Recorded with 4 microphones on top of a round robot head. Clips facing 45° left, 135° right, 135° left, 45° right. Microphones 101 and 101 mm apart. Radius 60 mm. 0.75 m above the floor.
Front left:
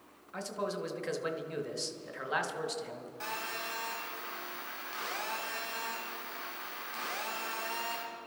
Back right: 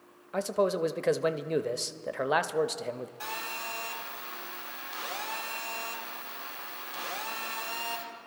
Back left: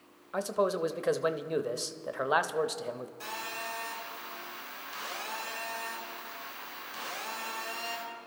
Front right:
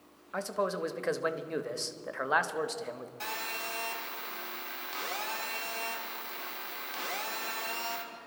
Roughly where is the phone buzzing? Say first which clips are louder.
Back right 1 dB, even; ahead right.